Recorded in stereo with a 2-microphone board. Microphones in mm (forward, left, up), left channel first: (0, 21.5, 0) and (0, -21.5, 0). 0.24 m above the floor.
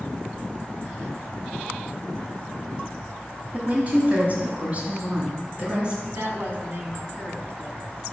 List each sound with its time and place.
3.5 s a woman speaking: 35° right (ahead or behind), 1.3 m; by 6.0 s 20° right (ahead or behind), 2.5 m
6.1 s a woman speaking: 50° right (ahead or behind), 1.6 m